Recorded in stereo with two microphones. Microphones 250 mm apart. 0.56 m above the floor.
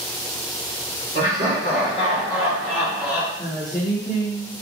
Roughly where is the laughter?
Right.